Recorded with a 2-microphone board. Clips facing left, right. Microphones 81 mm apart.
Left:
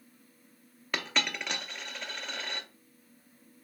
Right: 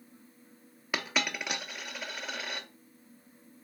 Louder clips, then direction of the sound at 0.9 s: Even; 5° right (ahead or behind).